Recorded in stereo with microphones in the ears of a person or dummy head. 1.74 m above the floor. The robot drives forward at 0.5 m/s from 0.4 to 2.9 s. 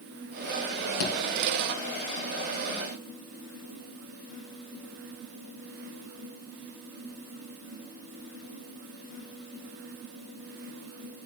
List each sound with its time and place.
1.0 s a thud: 50° left (ahead or behind), 3.5 m